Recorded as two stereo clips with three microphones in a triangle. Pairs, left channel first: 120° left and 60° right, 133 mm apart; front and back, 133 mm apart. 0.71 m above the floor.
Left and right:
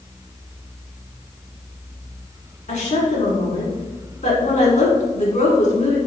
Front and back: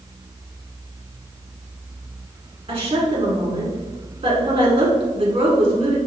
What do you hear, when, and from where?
2.7 s a woman speaking: 135° left, 1.6 m